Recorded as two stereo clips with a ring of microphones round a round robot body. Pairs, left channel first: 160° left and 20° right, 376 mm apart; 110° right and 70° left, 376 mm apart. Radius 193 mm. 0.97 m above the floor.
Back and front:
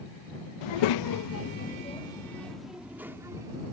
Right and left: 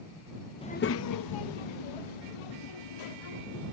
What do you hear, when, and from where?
0.6 s a child speaking: 170° left; by 3.6 s 105° right